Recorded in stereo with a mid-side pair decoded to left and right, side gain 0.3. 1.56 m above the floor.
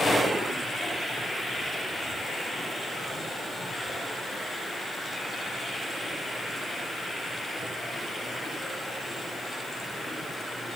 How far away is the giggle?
I don't hear a giggle.